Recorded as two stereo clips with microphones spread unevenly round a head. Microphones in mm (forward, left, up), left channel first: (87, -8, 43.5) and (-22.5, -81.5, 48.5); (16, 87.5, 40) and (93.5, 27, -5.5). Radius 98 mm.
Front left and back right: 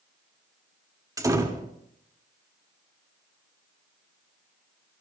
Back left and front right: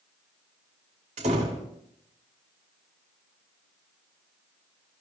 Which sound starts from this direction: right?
A door slam, at 1.2 s.